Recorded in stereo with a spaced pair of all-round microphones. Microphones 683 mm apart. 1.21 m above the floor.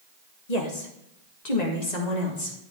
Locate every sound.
0.5 s a woman speaking: 70° left (ahead or behind), 1.6 m; by 2.6 s 75° left (ahead or behind), 3 m